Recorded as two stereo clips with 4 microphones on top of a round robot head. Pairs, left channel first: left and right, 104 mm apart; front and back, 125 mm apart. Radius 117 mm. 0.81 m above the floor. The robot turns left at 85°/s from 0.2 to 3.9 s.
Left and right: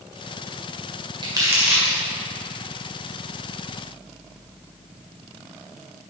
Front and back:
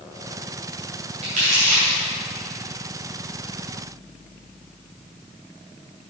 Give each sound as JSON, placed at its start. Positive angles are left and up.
{"t": 1.2, "sound": "crumpling", "azimuth_deg": -130, "distance_m": 2.0}